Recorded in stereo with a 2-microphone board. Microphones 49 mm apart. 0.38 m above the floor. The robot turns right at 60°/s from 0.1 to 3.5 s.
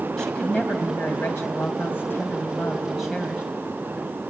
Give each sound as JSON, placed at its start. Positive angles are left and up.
{"t": 0.2, "sound": "a woman speaking", "azimuth_deg": 5, "distance_m": 3.0}